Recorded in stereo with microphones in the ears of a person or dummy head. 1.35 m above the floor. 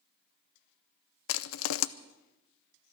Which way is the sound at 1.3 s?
65° left (ahead or behind).